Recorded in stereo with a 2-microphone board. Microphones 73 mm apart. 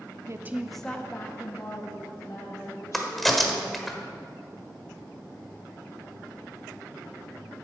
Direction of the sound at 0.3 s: 45° right (ahead or behind).